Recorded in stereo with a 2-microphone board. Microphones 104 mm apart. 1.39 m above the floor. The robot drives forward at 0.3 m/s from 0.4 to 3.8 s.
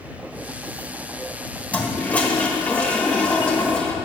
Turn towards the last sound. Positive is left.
turn(degrees=10)  # may be behind; listen again after turning